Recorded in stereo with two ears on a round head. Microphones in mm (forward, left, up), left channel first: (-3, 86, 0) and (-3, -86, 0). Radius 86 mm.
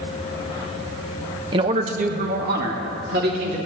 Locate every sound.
1.5 s a man speaking: 25° right (ahead or behind), 1.1 m; by 3.6 s 60° right (ahead or behind), 3.5 m